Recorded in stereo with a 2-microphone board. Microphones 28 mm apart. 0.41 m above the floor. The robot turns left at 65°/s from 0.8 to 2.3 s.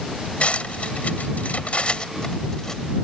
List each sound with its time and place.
0.4 s cutlery clinking: 55° left (ahead or behind); by 2.8 s 20° left (ahead or behind)